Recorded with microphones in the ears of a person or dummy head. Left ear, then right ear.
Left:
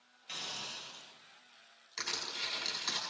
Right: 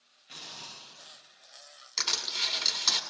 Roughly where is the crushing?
Right.